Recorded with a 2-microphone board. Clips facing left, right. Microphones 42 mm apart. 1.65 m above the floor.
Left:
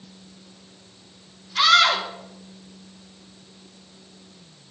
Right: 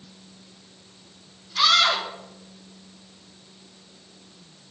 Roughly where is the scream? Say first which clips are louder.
Left 3 dB; left.